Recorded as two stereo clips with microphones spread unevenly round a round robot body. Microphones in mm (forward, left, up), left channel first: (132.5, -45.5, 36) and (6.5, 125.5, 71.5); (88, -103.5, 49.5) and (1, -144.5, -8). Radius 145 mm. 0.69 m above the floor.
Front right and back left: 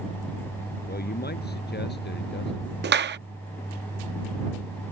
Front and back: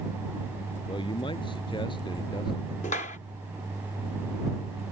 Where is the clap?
80° left.